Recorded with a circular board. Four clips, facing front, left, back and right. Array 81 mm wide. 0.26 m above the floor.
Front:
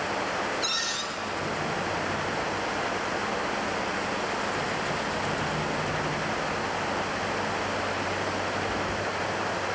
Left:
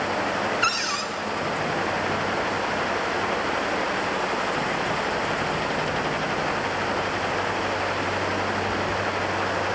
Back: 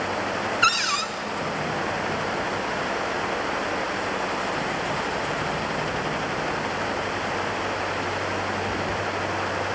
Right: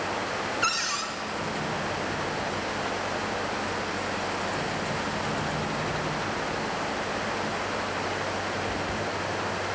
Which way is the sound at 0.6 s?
165° left.